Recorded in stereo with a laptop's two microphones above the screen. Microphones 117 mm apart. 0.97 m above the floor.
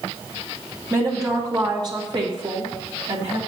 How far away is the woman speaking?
About 1.7 m.